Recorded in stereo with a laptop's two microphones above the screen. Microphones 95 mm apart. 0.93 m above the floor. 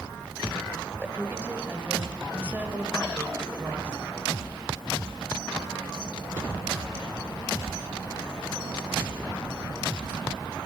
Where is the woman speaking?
15° right (ahead or behind), 5 m.